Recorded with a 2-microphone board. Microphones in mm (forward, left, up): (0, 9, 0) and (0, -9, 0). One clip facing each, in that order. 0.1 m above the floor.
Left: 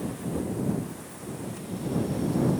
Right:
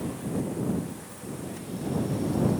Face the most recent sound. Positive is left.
No sound to turn to.